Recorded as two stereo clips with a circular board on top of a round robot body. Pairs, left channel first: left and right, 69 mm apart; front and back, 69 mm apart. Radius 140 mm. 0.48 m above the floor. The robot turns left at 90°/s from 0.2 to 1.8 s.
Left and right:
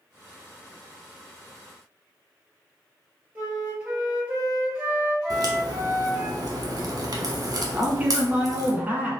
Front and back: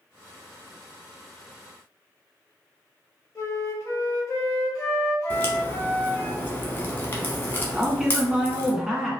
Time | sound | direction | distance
3.4 | a flute | 25° right | 1.5 m
5.3 | a crack | 60° right | 0.9 m
7.7 | a man speaking | 110° right | 1.3 m